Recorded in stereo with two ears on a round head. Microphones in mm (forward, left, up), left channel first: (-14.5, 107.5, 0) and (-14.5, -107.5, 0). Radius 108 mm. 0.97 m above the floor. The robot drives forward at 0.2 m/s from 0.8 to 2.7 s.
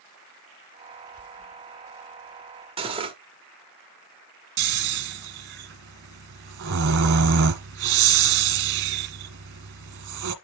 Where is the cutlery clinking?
25° right (ahead or behind), 1.7 m.